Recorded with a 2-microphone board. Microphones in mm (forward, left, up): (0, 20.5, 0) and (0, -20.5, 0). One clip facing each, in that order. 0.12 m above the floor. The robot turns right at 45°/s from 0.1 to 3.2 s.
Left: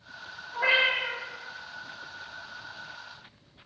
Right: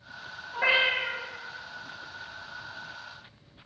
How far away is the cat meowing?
About 1.1 m.